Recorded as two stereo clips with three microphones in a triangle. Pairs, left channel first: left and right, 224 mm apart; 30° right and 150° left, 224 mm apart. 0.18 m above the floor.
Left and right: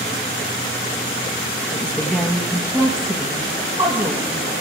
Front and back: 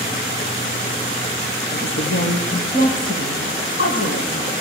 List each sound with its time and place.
1.7 s a woman speaking: 10° left, 4.5 m; by 4.5 s 30° right, 7 m